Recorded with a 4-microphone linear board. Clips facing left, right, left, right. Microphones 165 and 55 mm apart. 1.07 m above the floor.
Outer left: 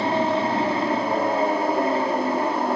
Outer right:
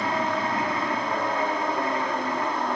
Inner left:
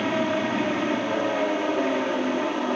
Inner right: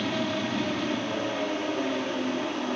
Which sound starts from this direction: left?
An aircraft, at 0.0 s.